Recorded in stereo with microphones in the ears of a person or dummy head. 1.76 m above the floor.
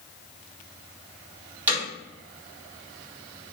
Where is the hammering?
15° right (ahead or behind), 4 m.